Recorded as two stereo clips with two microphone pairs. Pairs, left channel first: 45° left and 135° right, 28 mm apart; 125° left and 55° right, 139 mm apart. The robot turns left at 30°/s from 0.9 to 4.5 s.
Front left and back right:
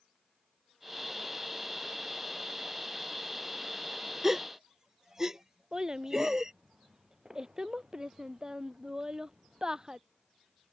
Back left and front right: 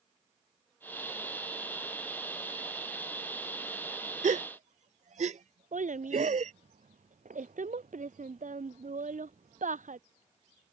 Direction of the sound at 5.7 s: 65° right.